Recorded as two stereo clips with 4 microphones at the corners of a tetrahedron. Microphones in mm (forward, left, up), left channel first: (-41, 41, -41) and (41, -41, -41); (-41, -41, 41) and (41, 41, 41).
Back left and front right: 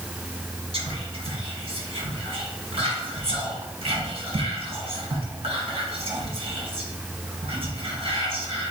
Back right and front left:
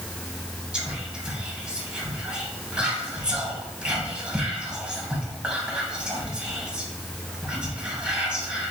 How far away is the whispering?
About 1.7 m.